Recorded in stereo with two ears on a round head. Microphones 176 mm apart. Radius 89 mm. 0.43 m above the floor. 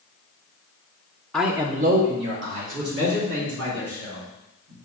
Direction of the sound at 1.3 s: 5° left (ahead or behind).